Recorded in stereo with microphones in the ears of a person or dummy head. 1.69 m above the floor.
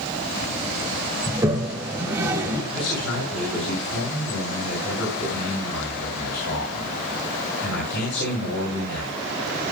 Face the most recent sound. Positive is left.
turn(degrees=65)  # may be behind; listen again after turning